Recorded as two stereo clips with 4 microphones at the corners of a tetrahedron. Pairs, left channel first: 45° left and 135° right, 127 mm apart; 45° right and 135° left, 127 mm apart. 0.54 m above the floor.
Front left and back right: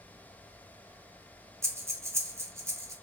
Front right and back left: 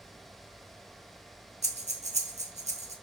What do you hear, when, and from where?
1.6 s breathing: 155° left, 0.7 m